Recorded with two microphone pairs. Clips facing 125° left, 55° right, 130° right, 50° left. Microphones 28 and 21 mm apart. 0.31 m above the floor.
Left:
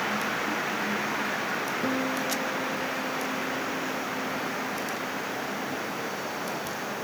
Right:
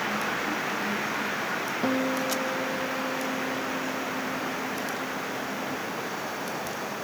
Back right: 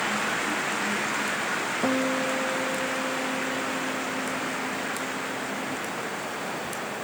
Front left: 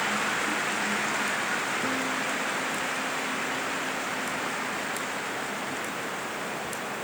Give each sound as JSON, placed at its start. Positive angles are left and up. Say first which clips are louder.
{"t": 1.8, "sound": "a guitar", "louder": "right 4 dB, back right 3 dB", "azimuth_deg": -120}